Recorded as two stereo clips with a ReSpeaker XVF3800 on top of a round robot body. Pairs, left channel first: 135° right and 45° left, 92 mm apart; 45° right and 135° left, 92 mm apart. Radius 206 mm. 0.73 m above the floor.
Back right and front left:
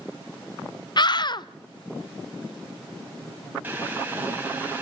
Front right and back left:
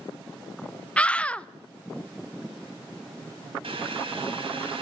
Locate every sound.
1.0 s a scream: 120° right, 0.8 m
3.6 s boiling: 115° left, 4.5 m